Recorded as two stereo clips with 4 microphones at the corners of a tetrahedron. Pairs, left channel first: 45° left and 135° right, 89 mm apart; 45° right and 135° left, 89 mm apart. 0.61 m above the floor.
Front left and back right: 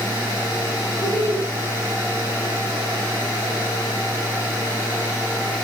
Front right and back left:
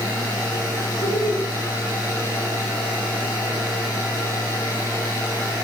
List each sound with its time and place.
1.0 s laughter: 20° left, 5.5 m